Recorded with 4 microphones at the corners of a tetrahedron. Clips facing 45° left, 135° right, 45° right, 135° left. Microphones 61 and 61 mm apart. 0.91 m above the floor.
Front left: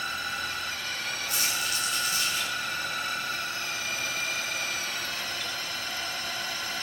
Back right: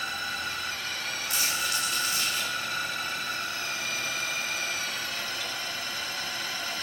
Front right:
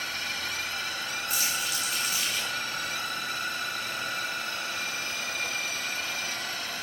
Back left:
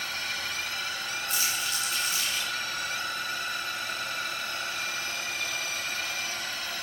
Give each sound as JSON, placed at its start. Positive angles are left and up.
{"t": 1.3, "sound": "crumpling", "azimuth_deg": -130, "distance_m": 7.5}